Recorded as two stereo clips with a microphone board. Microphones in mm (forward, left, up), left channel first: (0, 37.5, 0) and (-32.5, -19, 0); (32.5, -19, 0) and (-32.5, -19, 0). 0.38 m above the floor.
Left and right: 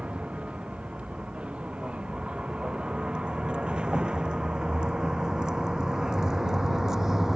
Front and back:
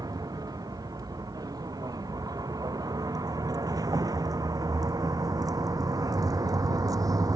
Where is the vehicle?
165° left; by 7.4 s 155° left.